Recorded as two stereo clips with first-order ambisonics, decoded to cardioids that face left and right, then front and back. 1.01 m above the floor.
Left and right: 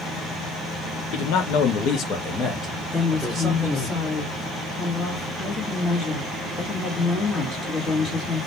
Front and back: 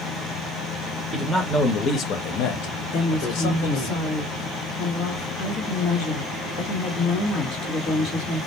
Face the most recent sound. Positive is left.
turn(degrees=30)